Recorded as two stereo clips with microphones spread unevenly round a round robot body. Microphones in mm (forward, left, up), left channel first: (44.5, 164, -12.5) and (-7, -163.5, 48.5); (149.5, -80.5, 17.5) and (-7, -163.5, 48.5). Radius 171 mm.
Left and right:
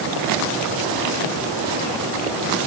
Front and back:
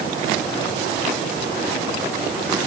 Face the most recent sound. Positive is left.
No sound to turn to.